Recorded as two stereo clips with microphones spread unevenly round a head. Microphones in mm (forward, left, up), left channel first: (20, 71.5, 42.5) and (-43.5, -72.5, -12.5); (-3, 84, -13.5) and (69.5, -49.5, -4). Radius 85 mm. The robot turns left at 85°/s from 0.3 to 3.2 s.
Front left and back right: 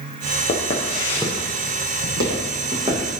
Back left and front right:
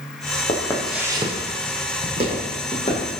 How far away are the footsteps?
About 3 m.